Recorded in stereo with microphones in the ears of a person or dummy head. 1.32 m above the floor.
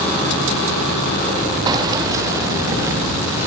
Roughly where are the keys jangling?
Right.